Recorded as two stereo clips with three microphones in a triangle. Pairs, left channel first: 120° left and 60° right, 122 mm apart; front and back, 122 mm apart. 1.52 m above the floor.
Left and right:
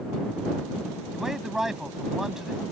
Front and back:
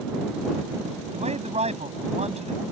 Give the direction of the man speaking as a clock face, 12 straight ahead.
5 o'clock.